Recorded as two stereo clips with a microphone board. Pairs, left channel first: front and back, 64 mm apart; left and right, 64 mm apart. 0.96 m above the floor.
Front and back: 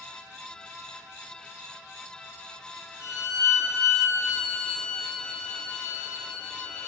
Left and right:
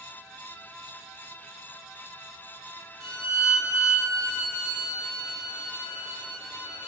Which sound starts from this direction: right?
A violin, at 3.0 s.